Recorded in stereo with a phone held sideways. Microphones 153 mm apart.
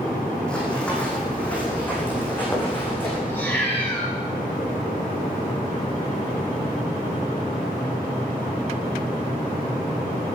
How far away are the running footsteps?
About 5 m.